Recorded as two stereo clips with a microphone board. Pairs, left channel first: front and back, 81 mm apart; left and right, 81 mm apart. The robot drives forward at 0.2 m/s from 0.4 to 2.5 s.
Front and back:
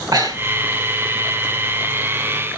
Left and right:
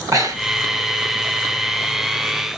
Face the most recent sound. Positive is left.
turn(degrees=-145)